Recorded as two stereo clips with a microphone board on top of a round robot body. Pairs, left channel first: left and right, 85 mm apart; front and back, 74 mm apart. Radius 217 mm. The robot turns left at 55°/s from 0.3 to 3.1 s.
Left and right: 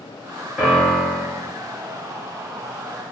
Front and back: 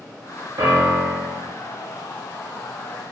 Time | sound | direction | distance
0.6 | a piano | 175° right | 2.0 m